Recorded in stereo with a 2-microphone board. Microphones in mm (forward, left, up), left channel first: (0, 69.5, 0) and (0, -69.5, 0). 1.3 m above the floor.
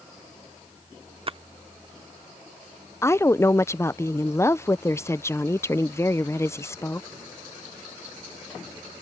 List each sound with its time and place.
1.3 s a splash: 40° right (ahead or behind)
3.0 s a woman speaking: 20° left (ahead or behind)